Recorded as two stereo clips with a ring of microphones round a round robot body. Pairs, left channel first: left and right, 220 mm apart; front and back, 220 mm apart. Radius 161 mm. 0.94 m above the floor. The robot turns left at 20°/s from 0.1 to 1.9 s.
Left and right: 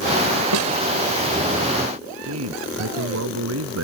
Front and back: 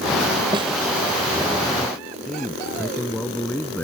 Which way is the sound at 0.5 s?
105° right.